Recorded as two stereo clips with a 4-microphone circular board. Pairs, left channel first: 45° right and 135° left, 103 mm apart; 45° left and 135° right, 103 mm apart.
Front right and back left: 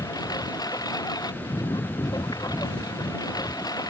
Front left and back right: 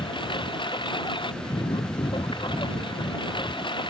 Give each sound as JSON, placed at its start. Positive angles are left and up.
{"t": 0.0, "sound": "a lawn mower", "azimuth_deg": 5}